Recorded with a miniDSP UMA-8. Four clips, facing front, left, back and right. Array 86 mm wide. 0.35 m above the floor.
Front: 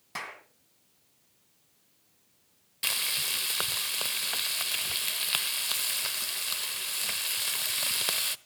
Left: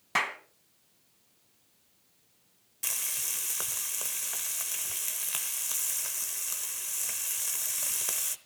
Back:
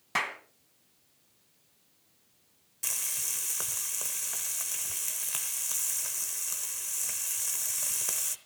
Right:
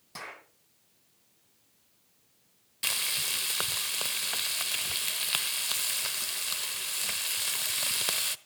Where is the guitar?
I don't hear a guitar.